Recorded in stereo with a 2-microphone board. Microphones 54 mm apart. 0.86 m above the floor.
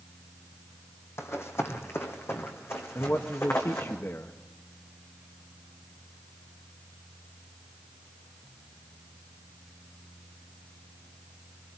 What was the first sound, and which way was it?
Running footsteps, 55° left (ahead or behind).